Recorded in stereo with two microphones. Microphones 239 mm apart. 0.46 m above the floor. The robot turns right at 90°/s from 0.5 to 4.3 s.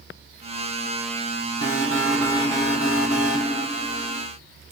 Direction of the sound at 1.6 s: 50° right.